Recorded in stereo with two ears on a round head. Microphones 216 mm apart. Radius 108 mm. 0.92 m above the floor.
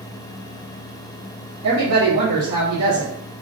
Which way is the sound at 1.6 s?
65° right (ahead or behind).